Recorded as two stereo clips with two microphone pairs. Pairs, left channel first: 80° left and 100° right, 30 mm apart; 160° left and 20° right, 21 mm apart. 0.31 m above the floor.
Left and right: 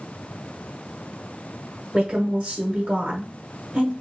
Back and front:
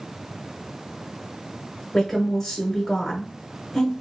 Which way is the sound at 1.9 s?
125° right.